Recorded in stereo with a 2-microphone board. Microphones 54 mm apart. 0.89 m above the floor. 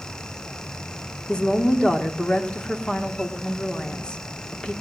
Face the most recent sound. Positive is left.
turn(degrees=20)  # may be behind; listen again after turning